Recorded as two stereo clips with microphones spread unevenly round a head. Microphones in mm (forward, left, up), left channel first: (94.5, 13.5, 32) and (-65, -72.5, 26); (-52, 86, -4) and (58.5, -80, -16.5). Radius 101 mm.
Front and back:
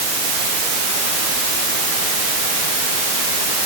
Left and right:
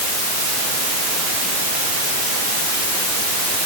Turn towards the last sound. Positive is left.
No sound to turn to.